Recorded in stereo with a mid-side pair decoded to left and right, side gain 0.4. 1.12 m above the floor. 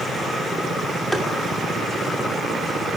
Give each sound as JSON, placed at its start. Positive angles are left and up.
{"t": 1.1, "sound": "tapping", "azimuth_deg": -5, "distance_m": 2.0}